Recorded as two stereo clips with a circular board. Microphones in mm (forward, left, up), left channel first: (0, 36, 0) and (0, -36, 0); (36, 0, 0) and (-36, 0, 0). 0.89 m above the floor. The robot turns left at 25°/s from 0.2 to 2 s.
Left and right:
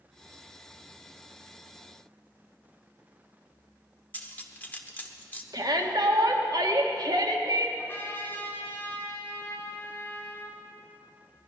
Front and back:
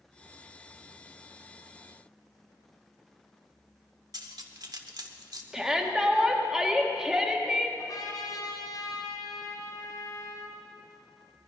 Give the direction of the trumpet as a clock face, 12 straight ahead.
11 o'clock.